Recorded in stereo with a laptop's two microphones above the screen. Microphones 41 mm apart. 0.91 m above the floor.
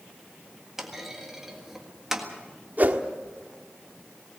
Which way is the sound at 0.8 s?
10° right (ahead or behind).